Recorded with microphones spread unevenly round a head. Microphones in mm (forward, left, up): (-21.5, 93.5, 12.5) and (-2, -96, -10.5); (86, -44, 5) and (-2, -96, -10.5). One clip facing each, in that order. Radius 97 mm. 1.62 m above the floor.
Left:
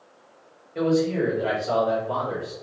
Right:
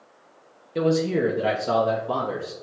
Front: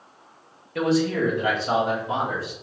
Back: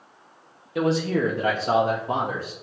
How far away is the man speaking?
About 0.7 m.